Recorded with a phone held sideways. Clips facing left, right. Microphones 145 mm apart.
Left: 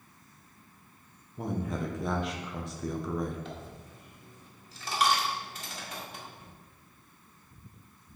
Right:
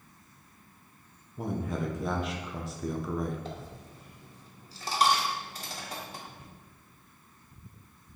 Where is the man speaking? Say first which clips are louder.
Even; centre (ahead or behind), 0.9 m.